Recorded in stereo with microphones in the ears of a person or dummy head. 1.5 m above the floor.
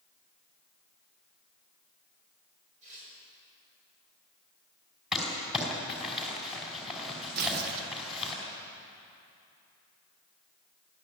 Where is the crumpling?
Centre (ahead or behind), 5 m.